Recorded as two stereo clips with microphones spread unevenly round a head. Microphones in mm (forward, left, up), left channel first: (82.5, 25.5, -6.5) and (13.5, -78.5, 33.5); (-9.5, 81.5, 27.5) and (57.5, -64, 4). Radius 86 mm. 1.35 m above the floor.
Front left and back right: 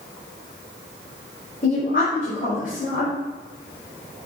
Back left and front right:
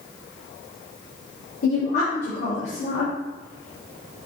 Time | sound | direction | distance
1.6 | a woman speaking | 90° left | 3 m